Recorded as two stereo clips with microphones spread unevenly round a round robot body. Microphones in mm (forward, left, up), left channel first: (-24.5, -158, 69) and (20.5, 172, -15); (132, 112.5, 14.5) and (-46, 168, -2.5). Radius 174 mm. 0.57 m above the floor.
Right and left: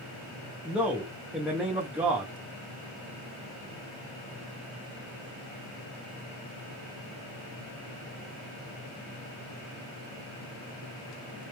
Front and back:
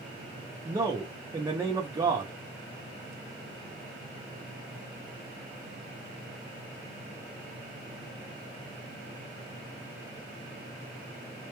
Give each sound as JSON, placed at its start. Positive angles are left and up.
{"t": 0.7, "sound": "a man speaking", "azimuth_deg": 130, "distance_m": 0.7}